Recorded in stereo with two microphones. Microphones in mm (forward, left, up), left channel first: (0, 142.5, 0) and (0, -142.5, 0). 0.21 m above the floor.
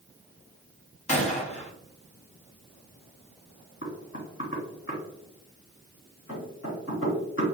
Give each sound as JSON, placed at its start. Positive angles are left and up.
{"t": 1.1, "sound": "a gunshot", "side_deg": 25, "distance_m": 1.0}
{"t": 3.8, "sound": "knocking", "side_deg": 45, "distance_m": 1.5}